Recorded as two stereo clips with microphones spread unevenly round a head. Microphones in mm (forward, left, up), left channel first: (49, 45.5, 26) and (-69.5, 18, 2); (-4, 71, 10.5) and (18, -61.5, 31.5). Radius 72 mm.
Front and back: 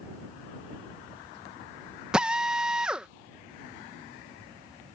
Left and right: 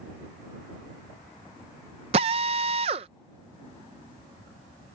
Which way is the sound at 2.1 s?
75° right.